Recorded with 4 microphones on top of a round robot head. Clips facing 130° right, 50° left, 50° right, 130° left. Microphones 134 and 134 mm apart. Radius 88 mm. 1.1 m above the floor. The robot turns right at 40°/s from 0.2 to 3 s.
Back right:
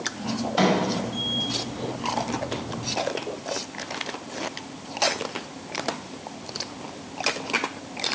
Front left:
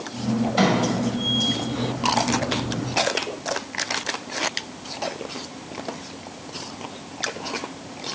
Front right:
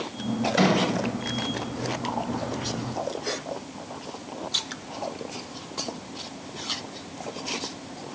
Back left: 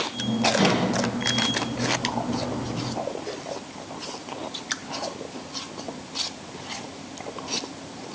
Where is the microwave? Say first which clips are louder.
Even, front right 2 dB; 45° right, 1.9 m; by 0.8 s 40° right, 1.9 m.